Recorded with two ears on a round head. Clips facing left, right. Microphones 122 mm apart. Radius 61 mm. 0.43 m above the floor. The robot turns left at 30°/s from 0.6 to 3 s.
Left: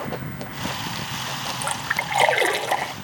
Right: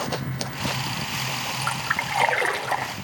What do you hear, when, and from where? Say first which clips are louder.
1.6 s a splash: left 1 dB; 85° left, 0.7 m; by 2.9 s 45° left, 0.7 m